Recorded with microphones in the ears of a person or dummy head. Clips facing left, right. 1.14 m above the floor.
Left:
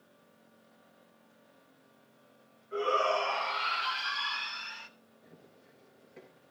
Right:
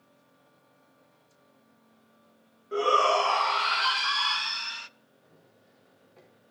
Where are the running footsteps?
25° left (ahead or behind), 5 m.